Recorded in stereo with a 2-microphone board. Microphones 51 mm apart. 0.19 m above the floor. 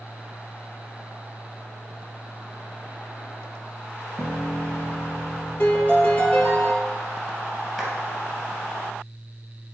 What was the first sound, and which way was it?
A piano, 20° left (ahead or behind).